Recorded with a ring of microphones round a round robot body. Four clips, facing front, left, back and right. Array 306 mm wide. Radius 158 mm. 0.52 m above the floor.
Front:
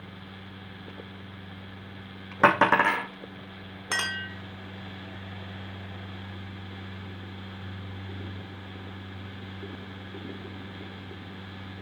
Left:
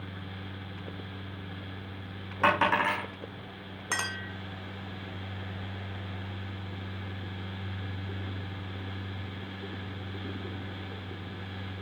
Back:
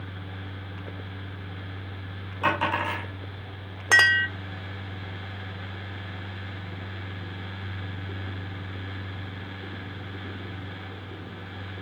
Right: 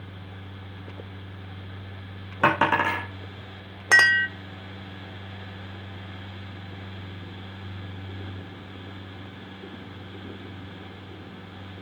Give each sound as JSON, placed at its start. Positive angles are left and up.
{"t": 2.4, "sound": "a dropped coin", "azimuth_deg": -35, "distance_m": 4.0}
{"t": 3.9, "sound": "a clink", "azimuth_deg": -125, "distance_m": 1.1}